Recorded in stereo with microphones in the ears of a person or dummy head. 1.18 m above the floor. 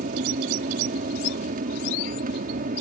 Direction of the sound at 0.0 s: 40° right (ahead or behind).